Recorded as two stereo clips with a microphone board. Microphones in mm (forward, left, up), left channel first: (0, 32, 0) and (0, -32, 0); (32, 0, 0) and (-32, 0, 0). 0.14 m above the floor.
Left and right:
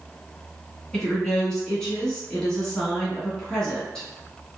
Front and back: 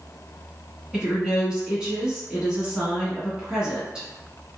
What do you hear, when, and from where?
0.9 s a woman speaking: 145° left, 1.1 m